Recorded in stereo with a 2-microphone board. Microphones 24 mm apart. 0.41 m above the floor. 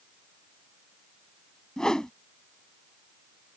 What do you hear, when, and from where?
1.8 s a whoosh: 25° left (ahead or behind)